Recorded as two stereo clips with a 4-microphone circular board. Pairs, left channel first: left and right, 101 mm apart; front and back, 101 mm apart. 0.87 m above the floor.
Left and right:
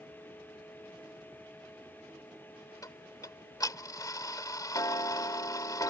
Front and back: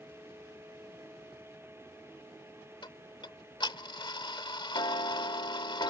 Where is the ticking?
40° left.